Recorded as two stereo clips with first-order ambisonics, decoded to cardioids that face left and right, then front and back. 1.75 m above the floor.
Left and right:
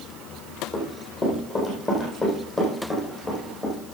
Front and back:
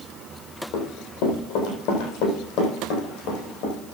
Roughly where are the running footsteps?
Ahead.